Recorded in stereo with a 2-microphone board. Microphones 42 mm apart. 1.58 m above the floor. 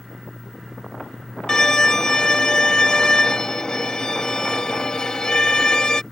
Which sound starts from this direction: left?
A violin, at 1.5 s.